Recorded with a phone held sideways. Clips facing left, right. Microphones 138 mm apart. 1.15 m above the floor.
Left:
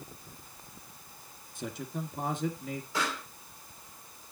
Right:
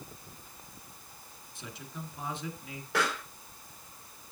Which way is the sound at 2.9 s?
80° right.